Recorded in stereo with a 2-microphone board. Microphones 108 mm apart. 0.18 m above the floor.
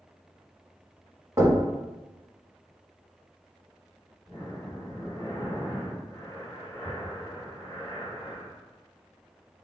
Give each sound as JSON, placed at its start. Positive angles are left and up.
{"t": 1.4, "sound": "knocking", "side_deg": -30, "distance_m": 0.8}
{"t": 4.3, "sound": "breathing", "side_deg": 20, "distance_m": 1.5}